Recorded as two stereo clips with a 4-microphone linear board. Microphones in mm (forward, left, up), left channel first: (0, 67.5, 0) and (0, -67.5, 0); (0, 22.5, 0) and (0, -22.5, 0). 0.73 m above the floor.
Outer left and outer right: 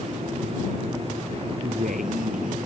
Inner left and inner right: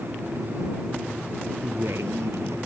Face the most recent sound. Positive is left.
turn(degrees=-75)  # may be behind; listen again after turning